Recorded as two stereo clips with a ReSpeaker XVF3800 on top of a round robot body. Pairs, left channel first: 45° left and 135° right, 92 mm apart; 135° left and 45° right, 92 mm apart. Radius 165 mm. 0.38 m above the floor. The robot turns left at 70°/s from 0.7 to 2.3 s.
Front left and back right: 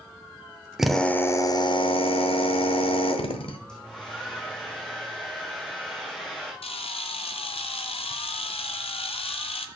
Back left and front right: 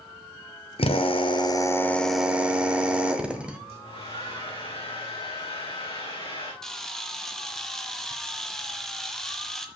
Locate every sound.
0.8 s a drill: 140° left, 1.2 m; by 3.6 s 35° left, 1.2 m
3.7 s a hair dryer: 125° left, 4.5 m
6.6 s a camera shutter: 50° left, 1.2 m